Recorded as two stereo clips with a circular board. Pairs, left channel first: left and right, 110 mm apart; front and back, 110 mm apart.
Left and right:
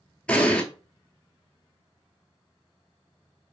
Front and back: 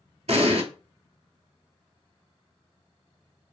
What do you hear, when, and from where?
0.3 s an explosion: 170° left, 0.6 m